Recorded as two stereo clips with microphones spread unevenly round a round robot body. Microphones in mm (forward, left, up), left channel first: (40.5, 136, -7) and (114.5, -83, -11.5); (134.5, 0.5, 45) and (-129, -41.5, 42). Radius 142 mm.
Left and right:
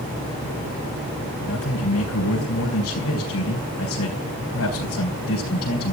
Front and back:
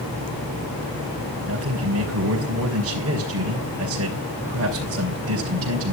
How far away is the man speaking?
About 3.5 m.